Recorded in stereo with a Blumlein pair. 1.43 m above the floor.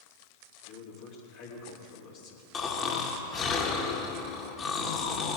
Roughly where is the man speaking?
Ahead left.